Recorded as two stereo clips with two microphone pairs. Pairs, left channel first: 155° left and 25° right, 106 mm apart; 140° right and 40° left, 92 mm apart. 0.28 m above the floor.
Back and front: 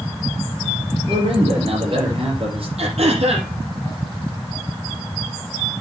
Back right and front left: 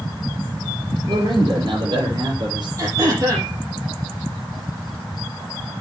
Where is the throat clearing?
10° right, 7 m.